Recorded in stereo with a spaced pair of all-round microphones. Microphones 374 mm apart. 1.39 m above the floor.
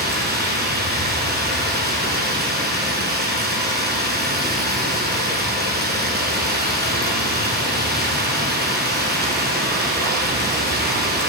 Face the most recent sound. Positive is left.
turn(degrees=-25)  # may be behind; listen again after turning